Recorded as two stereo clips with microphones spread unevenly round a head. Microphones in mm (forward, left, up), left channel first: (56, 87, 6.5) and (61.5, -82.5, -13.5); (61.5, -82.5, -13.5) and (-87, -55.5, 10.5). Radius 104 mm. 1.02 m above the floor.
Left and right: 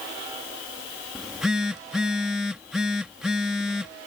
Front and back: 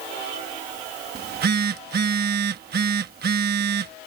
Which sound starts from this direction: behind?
A phone buzzing, at 1.1 s.